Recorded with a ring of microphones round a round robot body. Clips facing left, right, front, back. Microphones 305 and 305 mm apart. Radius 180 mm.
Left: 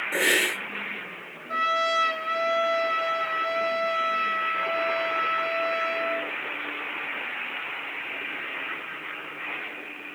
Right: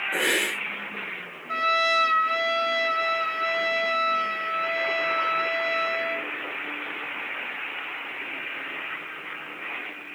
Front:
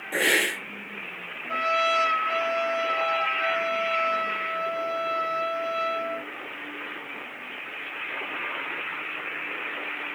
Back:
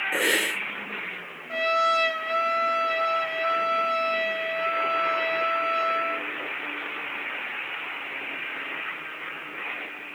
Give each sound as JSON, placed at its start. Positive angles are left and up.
{"t": 0.1, "sound": "a hiss", "azimuth_deg": 70, "distance_m": 1.3}
{"t": 1.5, "sound": "a trumpet", "azimuth_deg": -100, "distance_m": 1.6}